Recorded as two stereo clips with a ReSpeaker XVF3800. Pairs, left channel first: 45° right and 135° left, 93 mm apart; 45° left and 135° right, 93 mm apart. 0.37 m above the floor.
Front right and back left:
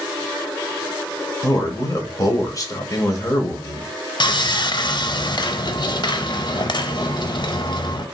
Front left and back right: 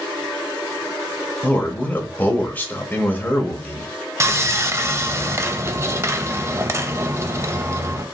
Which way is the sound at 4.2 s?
75° right.